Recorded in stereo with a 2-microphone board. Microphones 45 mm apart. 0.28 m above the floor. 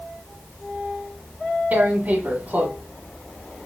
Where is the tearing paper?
40° right (ahead or behind), 1.6 m.